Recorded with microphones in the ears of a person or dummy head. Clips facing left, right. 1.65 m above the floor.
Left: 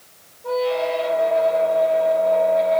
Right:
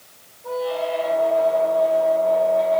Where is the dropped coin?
I don't hear a dropped coin.